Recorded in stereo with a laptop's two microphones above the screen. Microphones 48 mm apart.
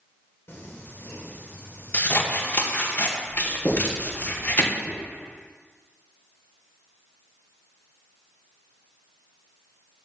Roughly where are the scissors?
Left.